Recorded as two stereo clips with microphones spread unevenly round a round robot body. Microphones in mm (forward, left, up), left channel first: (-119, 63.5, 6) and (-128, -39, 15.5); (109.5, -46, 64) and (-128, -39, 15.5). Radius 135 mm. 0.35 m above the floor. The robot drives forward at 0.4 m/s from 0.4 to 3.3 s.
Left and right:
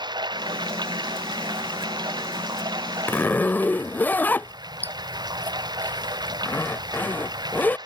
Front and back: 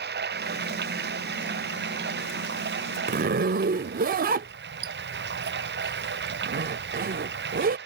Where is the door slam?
No door slam in this recording.